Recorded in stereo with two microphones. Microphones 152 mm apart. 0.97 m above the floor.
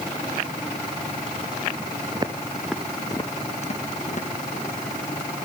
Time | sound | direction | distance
2.1 | footsteps | 30° right (ahead or behind) | 1.3 m